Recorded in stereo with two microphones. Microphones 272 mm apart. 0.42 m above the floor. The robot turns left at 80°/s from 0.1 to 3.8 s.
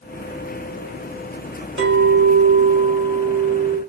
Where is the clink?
60° right, 1.0 m; by 3.8 s 140° left, 1.0 m.